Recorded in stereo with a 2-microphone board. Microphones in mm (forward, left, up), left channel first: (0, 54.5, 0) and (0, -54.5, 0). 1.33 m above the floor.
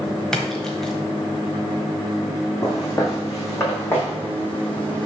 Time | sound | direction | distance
0.3 | a splash | 5° left (ahead or behind) | 1.2 m
2.6 | footsteps | 35° left (ahead or behind) | 3 m